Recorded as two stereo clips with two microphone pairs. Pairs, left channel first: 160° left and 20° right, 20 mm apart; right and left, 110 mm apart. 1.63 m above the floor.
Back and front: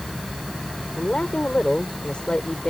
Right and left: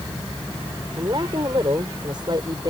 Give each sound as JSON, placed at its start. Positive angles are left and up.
{"t": 1.0, "sound": "a woman speaking", "azimuth_deg": 135}